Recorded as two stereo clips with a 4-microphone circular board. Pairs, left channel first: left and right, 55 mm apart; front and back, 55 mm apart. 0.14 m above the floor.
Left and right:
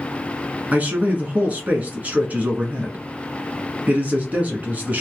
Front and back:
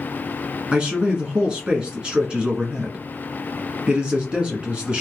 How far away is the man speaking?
About 1.3 m.